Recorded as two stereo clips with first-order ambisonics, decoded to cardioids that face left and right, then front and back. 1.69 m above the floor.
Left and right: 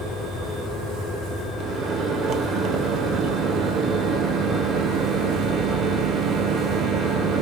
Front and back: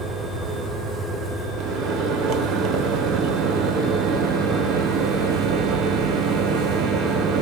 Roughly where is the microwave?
Behind right.